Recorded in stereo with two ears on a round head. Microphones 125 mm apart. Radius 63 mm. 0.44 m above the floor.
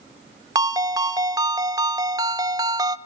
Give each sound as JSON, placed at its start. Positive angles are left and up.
{"t": 0.6, "sound": "a ringtone", "side_deg": -25, "distance_m": 0.7}